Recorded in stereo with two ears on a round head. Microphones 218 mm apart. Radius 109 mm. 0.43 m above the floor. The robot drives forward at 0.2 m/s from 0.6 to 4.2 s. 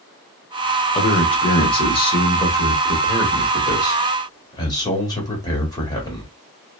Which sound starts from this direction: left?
A man speaking, at 0.9 s.